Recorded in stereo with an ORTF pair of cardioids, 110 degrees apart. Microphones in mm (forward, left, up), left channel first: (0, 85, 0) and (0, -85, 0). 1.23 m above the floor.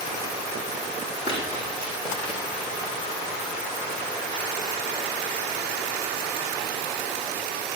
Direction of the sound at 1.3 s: 35° left.